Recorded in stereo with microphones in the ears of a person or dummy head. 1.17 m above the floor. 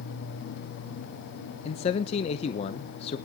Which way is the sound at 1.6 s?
40° left (ahead or behind).